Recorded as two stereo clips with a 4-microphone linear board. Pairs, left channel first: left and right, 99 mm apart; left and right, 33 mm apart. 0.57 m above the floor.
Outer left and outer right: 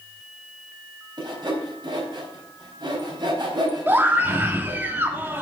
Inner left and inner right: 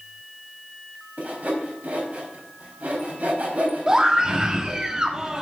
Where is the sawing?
50° right (ahead or behind), 4 m.